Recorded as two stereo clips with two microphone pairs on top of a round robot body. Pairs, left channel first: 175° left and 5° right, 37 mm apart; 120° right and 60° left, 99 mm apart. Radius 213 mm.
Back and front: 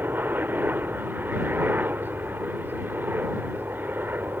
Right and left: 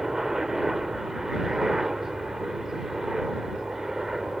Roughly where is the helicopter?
Ahead right.